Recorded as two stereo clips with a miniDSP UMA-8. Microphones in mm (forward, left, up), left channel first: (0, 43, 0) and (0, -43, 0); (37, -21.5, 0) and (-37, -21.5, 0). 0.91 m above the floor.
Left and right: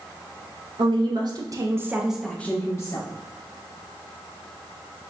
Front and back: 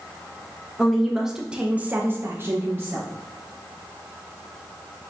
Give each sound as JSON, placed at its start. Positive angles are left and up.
{"t": 0.8, "sound": "a woman speaking", "azimuth_deg": -90, "distance_m": 1.0}